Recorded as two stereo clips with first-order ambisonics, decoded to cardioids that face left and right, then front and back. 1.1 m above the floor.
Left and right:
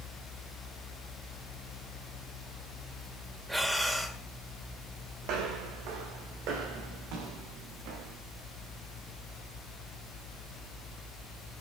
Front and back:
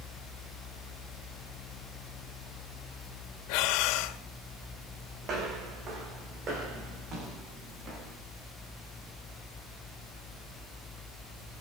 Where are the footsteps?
125° right, 4.5 m; by 8.2 s 120° right, 6 m.